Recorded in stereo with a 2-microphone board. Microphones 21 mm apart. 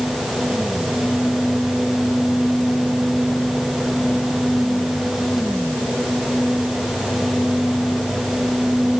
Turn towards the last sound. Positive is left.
No sound to turn to.